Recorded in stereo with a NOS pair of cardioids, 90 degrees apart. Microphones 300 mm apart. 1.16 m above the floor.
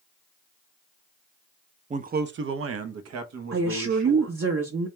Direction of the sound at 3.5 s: 45° right.